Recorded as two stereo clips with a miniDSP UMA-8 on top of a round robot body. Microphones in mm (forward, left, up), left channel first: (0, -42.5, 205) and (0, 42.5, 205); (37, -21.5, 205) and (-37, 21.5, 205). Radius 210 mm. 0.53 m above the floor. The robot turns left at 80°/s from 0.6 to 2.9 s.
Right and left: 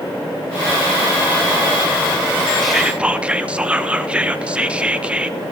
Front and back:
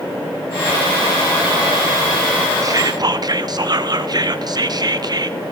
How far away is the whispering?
About 0.9 m.